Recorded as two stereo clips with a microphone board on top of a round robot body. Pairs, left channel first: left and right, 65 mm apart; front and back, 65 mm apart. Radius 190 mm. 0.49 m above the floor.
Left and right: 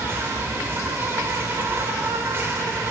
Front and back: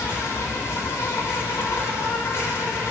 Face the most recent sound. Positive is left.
turn(degrees=-40)